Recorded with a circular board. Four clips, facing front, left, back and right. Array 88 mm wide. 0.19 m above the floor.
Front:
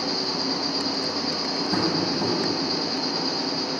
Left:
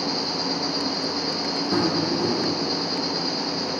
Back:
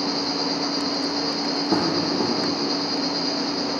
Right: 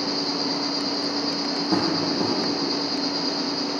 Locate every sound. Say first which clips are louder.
0.0 s an insect: right 1 dB, back 3 dB; 170° left, 2 m
1.7 s tapping: left 1 dB, back 3 dB; 155° right, 2.5 m